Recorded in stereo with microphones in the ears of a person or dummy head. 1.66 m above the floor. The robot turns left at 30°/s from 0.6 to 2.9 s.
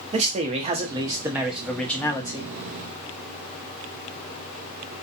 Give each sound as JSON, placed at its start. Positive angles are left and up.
{"t": 0.1, "sound": "a man speaking", "azimuth_deg": -150, "distance_m": 0.7}